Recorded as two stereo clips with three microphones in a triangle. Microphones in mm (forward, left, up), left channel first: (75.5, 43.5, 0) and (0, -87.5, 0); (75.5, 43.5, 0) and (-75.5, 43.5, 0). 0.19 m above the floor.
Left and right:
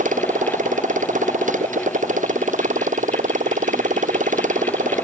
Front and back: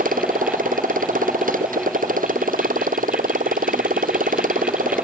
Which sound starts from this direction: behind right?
A motorcycle, at 0.0 s.